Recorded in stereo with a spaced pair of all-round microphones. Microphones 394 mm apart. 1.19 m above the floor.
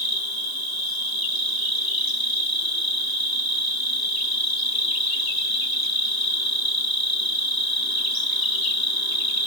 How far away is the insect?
About 1.2 m.